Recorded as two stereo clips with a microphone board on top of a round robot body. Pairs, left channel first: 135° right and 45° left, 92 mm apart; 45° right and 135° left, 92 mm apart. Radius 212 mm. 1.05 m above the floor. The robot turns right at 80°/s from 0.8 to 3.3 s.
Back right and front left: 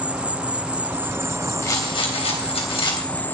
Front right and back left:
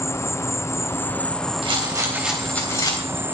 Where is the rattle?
165° left, 3 m; by 3.4 s 60° right, 3 m.